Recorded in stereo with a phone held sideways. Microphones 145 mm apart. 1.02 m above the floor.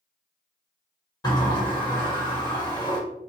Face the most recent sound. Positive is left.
turn(degrees=25)  # may be behind; listen again after turning